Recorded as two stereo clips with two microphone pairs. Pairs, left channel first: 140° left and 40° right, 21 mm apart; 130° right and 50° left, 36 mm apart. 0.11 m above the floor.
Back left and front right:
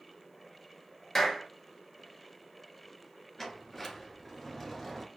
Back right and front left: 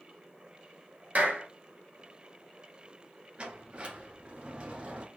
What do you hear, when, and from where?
1.1 s a clap: 80° left, 1.3 m
3.4 s a sliding door: 80° left, 1.0 m